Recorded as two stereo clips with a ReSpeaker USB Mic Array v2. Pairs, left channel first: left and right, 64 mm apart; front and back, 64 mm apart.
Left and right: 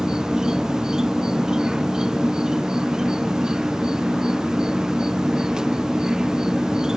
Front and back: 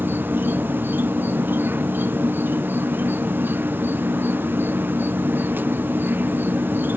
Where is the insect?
165° right.